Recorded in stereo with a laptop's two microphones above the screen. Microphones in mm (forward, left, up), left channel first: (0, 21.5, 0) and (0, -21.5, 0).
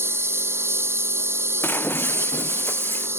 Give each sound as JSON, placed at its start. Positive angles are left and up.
{"t": 0.0, "sound": "a lawn mower", "side_deg": -85}
{"t": 1.6, "sound": "breaking glass", "side_deg": 60}